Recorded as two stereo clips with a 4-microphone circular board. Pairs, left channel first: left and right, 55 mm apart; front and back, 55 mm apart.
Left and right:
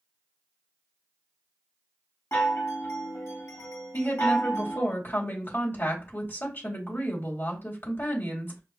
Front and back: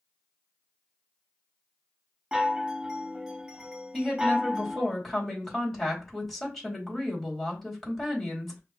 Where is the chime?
105° left, 1.2 m.